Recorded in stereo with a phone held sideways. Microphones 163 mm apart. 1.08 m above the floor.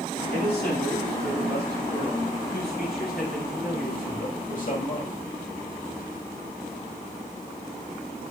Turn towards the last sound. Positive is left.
turn(degrees=50)  # may be behind; listen again after turning